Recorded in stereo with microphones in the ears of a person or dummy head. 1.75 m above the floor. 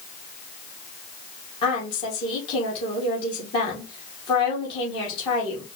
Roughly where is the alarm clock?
I don't hear an alarm clock.